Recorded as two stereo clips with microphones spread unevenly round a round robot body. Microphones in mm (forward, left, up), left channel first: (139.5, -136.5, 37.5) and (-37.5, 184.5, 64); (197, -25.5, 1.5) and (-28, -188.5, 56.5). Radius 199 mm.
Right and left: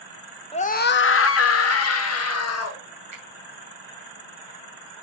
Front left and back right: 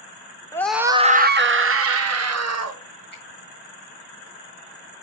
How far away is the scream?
About 0.8 m.